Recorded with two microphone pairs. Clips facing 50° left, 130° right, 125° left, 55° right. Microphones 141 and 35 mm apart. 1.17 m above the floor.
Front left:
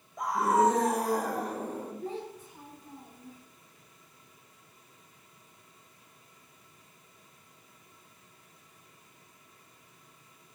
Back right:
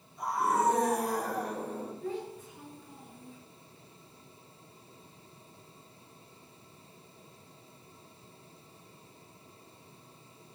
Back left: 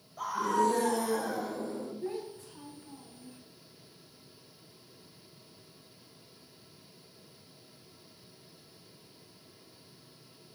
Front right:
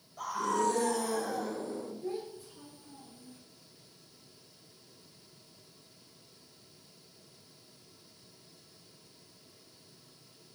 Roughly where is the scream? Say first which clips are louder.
Front left 4 dB, back left 2 dB; ahead left.